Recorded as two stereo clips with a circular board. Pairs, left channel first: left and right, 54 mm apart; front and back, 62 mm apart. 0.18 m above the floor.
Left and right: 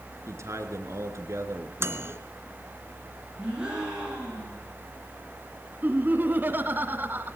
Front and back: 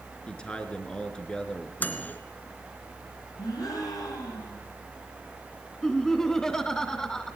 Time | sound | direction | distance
0.3 | a man speaking | 75° right | 3.5 m
1.8 | a microwave | 60° right | 2.5 m
3.4 | a gasp | 15° right | 8.5 m
5.8 | laughter | 75° right | 1.4 m